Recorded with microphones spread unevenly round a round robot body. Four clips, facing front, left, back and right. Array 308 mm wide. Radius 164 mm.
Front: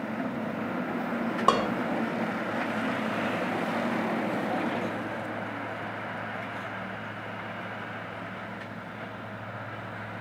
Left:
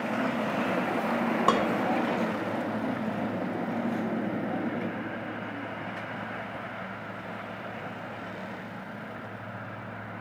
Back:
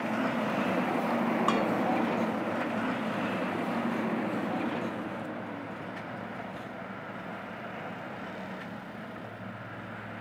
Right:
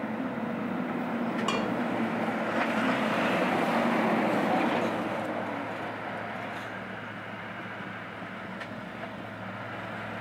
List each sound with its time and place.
1.5 s dishes clattering: 35° left, 1.4 m